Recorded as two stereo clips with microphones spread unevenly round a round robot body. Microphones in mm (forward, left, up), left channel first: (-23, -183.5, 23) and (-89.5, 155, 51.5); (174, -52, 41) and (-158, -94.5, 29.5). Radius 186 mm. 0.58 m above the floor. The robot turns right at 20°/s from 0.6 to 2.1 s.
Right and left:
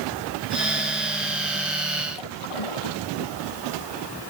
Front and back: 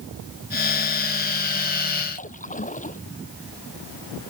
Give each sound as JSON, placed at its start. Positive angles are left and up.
{"t": 2.1, "sound": "a splash", "azimuth_deg": -60}